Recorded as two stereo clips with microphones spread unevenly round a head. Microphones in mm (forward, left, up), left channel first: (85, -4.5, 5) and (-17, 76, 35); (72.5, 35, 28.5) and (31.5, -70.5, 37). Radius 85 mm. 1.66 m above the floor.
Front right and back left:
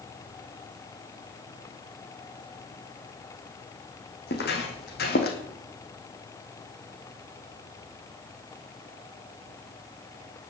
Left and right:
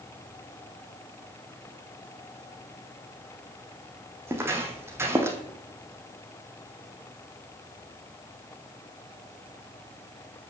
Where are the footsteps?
45° right, 3.5 m; by 5.4 s 50° right, 2.5 m.